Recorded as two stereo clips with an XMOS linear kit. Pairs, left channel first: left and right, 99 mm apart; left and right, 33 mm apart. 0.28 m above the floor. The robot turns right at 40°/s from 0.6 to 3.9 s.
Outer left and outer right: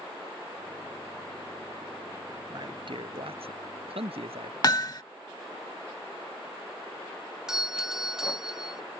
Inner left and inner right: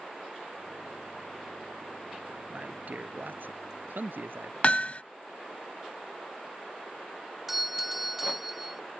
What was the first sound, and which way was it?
A man speaking, 135° right.